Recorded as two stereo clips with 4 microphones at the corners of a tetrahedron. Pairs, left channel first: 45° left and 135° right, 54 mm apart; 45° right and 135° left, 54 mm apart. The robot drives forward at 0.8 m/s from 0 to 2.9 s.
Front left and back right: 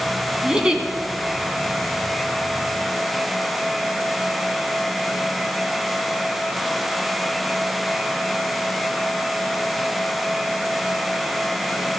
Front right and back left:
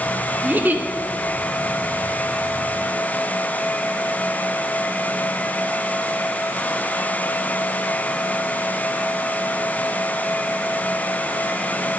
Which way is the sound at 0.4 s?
160° left.